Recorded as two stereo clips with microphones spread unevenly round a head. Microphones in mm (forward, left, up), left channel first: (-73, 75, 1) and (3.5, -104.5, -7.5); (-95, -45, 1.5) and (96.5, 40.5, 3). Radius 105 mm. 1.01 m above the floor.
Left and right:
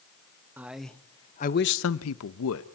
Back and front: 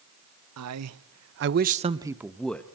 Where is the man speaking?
15° left, 0.8 m; by 2.6 s 120° left, 0.8 m.